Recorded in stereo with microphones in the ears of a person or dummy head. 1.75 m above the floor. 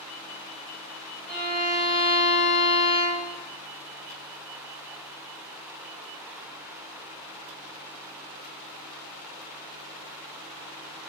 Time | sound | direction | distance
1.3 | a violin | centre (ahead or behind) | 2.0 m